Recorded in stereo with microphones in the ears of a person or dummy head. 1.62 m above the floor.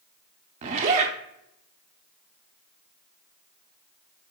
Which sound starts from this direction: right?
A zipper, at 0.6 s.